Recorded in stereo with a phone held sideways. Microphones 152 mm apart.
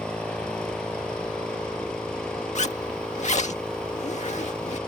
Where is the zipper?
50° left (ahead or behind).